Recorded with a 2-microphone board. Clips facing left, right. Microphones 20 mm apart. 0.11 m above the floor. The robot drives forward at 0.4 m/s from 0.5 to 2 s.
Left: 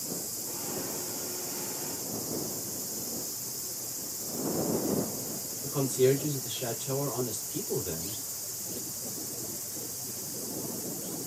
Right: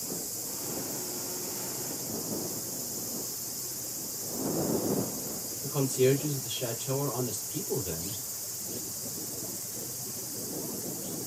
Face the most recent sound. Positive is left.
turn(degrees=-25)  # may be behind; listen again after turning